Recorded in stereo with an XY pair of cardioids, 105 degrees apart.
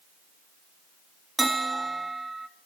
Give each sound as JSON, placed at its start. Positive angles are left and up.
{"t": 1.4, "sound": "a bell", "azimuth_deg": -20, "distance_m": 2.5}